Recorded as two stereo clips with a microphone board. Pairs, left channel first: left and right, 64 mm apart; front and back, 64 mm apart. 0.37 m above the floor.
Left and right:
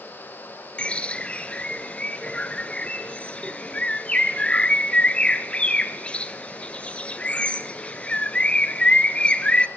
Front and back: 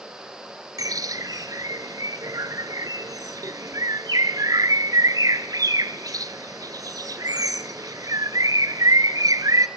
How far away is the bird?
About 1.2 m.